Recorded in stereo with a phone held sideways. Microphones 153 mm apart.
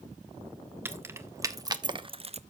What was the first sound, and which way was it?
Keys jangling, 15° right (ahead or behind).